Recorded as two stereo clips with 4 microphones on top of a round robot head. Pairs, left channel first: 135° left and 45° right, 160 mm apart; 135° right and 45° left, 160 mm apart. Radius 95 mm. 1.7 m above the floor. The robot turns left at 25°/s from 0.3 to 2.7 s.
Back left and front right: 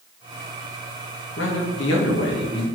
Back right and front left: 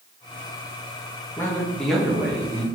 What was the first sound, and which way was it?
A man speaking, 150° left.